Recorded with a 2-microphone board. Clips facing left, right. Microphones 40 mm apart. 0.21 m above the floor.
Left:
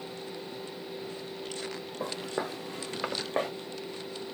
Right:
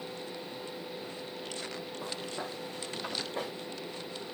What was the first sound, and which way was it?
Footsteps, 65° left (ahead or behind).